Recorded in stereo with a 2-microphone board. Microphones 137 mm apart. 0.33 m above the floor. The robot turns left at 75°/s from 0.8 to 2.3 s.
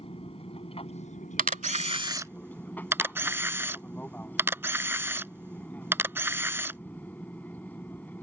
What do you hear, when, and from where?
0.0 s an aircraft: 125° left; by 8.2 s 15° left
1.4 s a camera shutter: 80° right; by 6.8 s 15° right (ahead or behind)